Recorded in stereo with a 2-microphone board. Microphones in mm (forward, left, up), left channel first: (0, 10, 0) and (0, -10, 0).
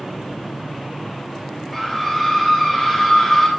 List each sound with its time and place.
1.7 s a scream: 15° left (ahead or behind), 3.5 m